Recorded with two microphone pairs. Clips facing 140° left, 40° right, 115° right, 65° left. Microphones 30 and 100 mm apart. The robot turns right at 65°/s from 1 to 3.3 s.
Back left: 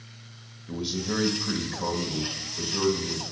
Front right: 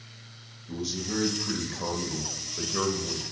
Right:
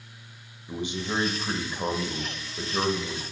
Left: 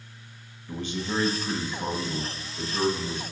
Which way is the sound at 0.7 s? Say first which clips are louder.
Back left 2 dB, even; 175° left.